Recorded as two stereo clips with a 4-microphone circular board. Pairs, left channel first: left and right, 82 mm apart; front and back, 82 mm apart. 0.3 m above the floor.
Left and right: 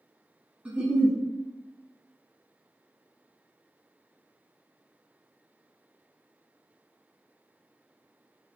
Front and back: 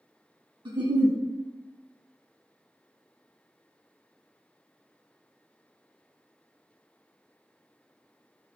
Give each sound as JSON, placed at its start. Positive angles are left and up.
{"t": 0.7, "sound": "a giggle", "azimuth_deg": -165, "distance_m": 0.6}